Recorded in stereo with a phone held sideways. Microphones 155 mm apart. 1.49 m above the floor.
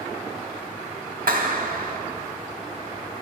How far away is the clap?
About 2 m.